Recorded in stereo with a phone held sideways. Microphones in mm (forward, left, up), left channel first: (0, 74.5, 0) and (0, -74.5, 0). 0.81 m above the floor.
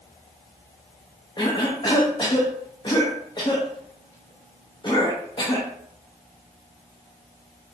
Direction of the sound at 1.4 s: 30° left (ahead or behind).